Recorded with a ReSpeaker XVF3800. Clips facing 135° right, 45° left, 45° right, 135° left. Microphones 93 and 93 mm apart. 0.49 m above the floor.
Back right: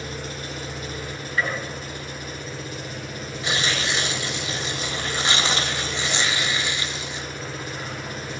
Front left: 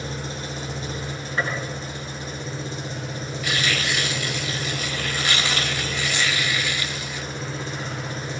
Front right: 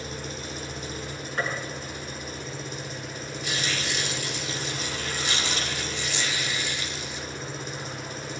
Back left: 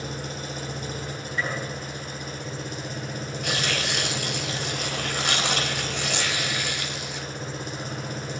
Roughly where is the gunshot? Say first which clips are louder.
Even, even; ahead.